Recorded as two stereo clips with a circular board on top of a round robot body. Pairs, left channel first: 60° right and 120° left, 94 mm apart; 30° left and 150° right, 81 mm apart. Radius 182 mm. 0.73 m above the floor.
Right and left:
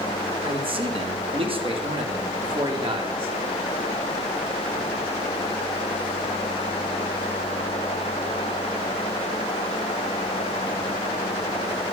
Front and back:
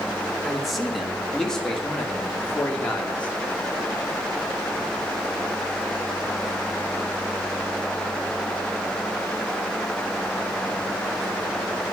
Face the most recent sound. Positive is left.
turn(degrees=105)